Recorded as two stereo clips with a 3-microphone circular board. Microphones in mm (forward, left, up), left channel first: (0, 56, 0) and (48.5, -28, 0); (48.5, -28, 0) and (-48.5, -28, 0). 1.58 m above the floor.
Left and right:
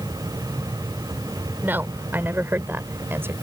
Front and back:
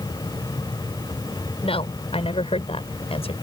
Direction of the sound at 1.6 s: 10° left.